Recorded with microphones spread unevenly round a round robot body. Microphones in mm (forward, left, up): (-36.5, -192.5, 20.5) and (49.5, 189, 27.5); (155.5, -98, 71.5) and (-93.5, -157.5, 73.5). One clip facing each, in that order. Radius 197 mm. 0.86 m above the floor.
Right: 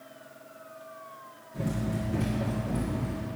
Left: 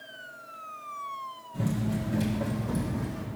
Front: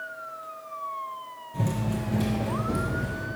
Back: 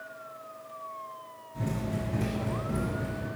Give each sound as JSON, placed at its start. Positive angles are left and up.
{"t": 1.5, "sound": "running footsteps", "azimuth_deg": 5, "distance_m": 1.8}